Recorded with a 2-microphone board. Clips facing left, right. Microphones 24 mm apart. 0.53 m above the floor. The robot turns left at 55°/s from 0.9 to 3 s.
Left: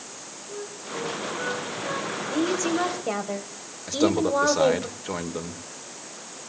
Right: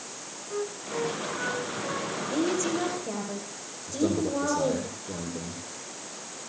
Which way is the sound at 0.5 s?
65° right (ahead or behind).